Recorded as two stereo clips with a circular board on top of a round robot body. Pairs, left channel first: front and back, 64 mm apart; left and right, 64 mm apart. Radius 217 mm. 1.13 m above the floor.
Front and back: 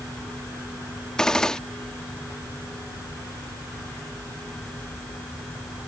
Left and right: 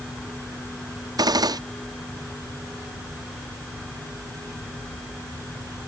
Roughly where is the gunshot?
Right.